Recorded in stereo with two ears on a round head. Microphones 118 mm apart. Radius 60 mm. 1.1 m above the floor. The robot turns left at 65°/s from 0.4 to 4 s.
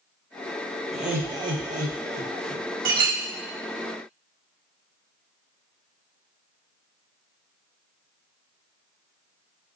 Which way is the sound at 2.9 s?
65° right (ahead or behind).